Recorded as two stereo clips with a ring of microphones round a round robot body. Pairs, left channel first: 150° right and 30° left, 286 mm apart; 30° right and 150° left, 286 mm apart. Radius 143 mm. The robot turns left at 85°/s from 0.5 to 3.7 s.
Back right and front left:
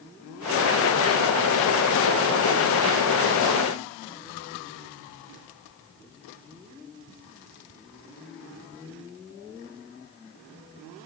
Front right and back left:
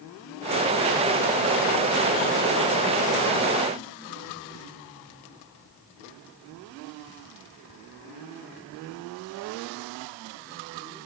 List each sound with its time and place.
Only background noise.